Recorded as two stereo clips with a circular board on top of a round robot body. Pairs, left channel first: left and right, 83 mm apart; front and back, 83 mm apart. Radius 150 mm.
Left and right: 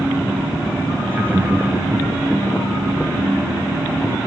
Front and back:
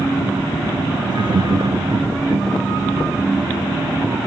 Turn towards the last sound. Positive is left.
turn(degrees=-165)